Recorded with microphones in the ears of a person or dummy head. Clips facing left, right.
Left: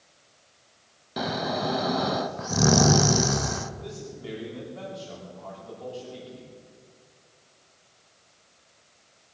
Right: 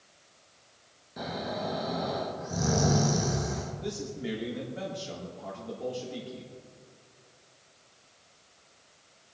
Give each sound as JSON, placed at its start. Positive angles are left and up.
{"t": 1.2, "sound": "snoring", "side_deg": 70, "distance_m": 0.8}
{"t": 3.8, "sound": "a man speaking", "side_deg": -25, "distance_m": 3.5}